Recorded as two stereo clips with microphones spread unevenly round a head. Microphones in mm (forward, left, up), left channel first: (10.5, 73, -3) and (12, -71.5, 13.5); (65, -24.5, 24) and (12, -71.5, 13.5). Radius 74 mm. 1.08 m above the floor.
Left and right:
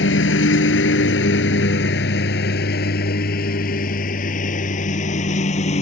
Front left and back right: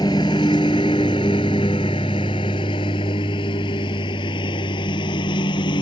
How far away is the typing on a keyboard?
I don't hear typing on a keyboard.